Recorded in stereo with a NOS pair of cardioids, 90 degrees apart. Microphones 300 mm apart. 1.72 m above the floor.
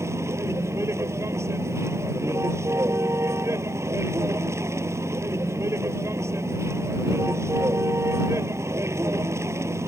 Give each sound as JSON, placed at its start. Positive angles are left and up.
{"t": 0.0, "sound": "a vehicle", "azimuth_deg": -10}